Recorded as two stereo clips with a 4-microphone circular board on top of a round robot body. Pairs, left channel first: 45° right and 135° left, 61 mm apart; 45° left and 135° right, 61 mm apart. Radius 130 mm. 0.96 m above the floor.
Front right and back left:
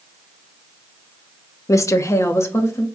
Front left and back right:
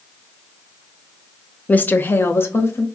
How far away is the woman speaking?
About 0.5 m.